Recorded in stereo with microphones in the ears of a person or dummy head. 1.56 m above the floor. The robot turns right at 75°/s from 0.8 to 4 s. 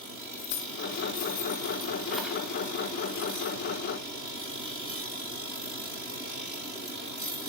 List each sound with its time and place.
0.4 s keys jangling: 60° left (ahead or behind), 1.8 m; by 2.4 s 10° right (ahead or behind), 1.8 m